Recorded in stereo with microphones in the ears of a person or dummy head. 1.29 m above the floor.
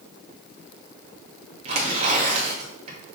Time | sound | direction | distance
1.6 | tearing paper | 35° right (ahead or behind) | 2.5 m